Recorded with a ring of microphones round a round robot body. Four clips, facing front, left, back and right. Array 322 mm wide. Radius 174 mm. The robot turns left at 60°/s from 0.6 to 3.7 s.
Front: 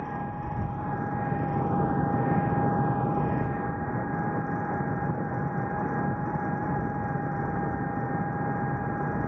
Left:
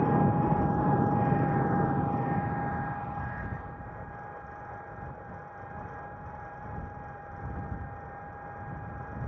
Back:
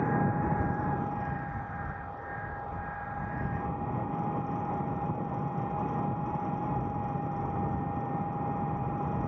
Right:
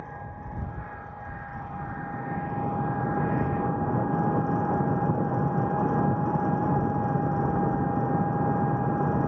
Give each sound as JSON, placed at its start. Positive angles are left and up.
{"t": 0.0, "sound": "an engine running", "azimuth_deg": 110}